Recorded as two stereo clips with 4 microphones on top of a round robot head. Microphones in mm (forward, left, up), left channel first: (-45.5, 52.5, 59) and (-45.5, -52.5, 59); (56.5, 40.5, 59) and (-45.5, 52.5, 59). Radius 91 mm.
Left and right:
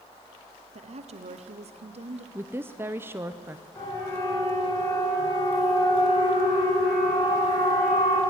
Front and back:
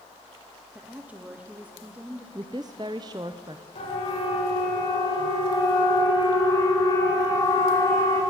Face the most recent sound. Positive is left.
turn(degrees=60)